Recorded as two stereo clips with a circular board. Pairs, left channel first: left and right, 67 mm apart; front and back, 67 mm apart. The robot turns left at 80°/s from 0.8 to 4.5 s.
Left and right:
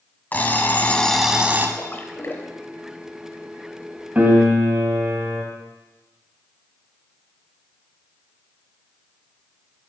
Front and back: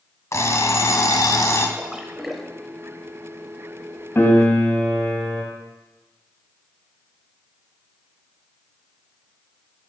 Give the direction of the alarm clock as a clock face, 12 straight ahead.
11 o'clock.